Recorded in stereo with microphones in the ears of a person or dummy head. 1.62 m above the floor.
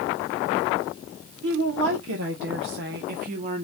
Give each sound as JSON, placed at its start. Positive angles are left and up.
{"t": 1.4, "sound": "a woman speaking", "side_deg": -85, "distance_m": 1.4}